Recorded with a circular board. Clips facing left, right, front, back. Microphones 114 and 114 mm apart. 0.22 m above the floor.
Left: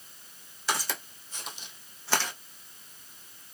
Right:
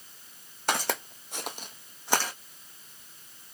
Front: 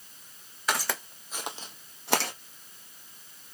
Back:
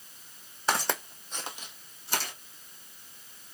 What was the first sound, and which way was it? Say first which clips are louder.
Footsteps: right 3 dB, back 2 dB; 120° right.